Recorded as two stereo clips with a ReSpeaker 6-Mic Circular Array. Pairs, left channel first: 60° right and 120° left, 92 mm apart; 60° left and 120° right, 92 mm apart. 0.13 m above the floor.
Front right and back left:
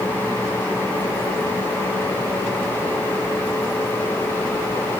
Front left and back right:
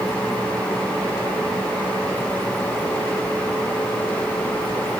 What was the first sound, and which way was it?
Only background noise.